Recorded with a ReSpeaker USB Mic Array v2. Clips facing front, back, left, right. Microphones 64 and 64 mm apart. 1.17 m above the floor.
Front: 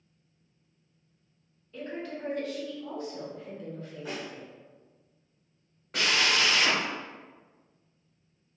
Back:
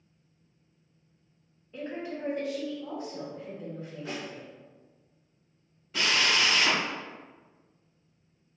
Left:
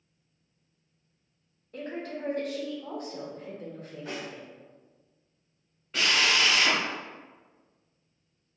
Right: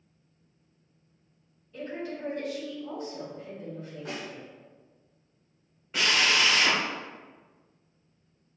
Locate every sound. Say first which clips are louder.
1.7 s a woman speaking: back 1 dB, even; 110° left, 0.9 m
4.0 s a snare drum: front 1 dB, left 1 dB; 80° right, 1.2 m
5.9 s a drill: even, even; 10° right, 1.4 m